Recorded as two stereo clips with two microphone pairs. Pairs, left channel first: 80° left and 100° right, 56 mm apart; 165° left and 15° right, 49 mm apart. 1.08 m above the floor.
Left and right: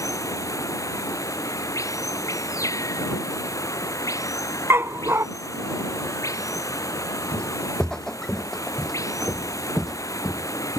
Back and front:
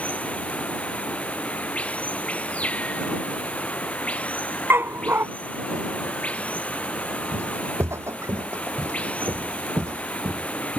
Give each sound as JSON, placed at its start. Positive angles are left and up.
{"t": 0.0, "sound": "running water", "azimuth_deg": 100}
{"t": 4.7, "sound": "a dog barking", "azimuth_deg": -55}
{"t": 7.3, "sound": "footsteps", "azimuth_deg": 5}